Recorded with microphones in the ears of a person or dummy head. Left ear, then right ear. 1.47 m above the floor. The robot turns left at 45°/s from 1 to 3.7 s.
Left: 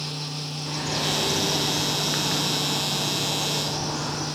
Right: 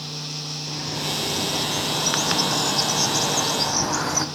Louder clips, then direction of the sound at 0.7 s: Left 3 dB; 15° left.